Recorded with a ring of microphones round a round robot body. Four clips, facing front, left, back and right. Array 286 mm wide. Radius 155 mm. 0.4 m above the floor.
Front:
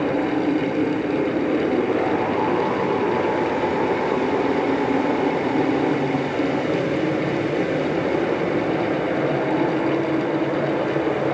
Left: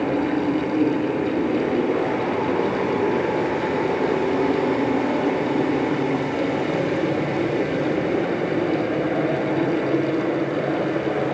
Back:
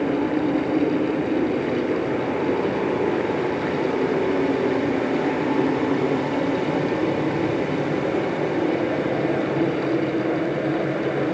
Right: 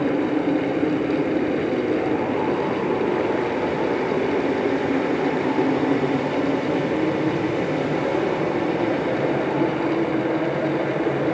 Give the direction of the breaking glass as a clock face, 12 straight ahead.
No breaking glass in this recording.